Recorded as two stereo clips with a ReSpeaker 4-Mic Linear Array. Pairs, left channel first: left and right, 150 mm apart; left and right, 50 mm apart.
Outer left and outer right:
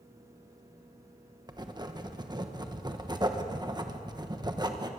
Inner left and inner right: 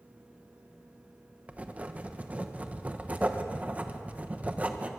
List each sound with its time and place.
1.5 s writing: 25° right (ahead or behind), 1.2 m